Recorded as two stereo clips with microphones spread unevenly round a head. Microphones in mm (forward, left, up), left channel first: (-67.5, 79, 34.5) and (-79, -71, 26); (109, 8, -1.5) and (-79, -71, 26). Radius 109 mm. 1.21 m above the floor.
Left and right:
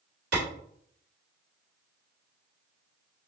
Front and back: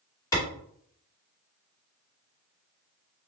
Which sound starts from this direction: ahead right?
A clap, at 0.3 s.